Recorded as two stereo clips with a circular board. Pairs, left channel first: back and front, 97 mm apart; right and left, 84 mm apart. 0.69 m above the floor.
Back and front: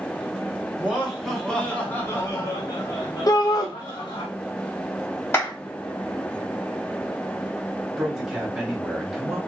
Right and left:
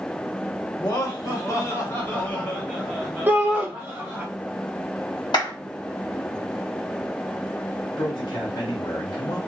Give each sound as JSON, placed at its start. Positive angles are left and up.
{"t": 0.8, "sound": "laughter", "azimuth_deg": -75, "distance_m": 1.2}
{"t": 3.3, "sound": "a shout", "azimuth_deg": 150, "distance_m": 0.9}
{"t": 5.3, "sound": "a clap", "azimuth_deg": -115, "distance_m": 1.7}
{"t": 8.0, "sound": "a man speaking", "azimuth_deg": -80, "distance_m": 1.1}